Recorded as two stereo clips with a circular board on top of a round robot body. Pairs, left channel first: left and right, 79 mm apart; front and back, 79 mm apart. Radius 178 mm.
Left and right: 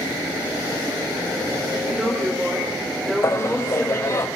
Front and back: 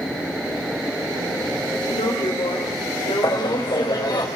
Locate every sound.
1.8 s a woman speaking: 10° right, 4 m
3.2 s laughter: 35° left, 4.5 m